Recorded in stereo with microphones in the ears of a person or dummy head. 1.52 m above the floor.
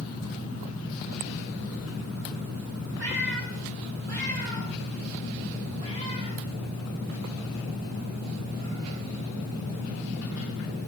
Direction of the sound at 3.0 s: 60° right (ahead or behind).